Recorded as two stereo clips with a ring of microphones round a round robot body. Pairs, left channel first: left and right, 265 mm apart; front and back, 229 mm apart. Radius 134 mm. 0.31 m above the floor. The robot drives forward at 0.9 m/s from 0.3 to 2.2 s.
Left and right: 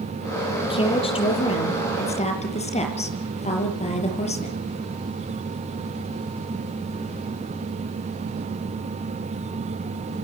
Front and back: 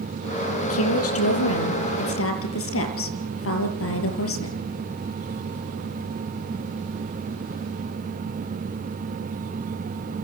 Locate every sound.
0.6 s a woman speaking: 20° left, 7.5 m; by 4.6 s 25° left, 6 m